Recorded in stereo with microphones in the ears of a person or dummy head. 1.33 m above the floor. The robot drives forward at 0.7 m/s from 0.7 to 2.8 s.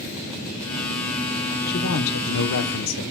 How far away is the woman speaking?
About 1.0 m.